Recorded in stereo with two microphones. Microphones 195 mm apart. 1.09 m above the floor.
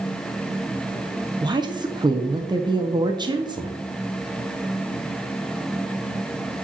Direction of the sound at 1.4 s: 20° right (ahead or behind).